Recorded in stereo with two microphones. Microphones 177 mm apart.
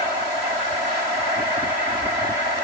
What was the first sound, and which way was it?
Only background noise.